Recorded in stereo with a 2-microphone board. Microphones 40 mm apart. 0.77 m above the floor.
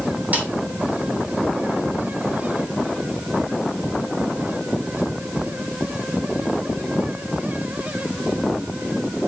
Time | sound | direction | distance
0.3 | a snare drum | 40° right (ahead or behind) | 2.5 m